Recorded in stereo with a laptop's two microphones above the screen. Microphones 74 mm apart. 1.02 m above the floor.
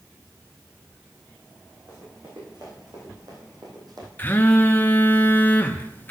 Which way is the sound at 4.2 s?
25° left (ahead or behind).